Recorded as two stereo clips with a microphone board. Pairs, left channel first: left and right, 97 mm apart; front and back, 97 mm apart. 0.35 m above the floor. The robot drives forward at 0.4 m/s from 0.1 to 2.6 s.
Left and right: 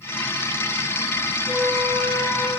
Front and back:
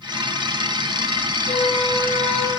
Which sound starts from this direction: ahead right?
A flute, at 1.5 s.